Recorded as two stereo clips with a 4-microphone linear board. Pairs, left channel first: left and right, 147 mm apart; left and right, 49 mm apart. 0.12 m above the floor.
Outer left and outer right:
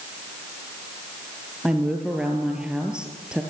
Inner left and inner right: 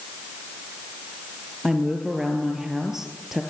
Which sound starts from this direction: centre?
A woman speaking, at 1.6 s.